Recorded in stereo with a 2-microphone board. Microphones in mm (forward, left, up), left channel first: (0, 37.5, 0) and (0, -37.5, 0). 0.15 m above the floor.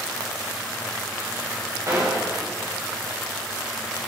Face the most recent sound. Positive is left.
turn(degrees=-40)  # may be behind; listen again after turning